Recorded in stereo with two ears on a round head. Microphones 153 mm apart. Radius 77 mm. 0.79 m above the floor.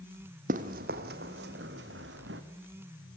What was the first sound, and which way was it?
Running footsteps, 50° right (ahead or behind).